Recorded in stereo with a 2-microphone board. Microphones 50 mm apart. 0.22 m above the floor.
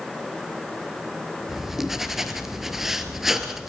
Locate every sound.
1.5 s writing: 5° right (ahead or behind), 2 m